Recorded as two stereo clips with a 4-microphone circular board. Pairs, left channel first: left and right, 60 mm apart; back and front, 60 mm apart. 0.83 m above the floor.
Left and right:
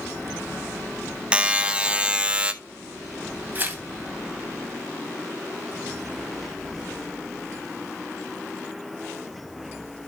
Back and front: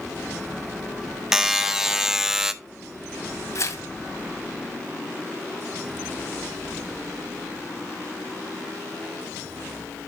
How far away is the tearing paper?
About 2 m.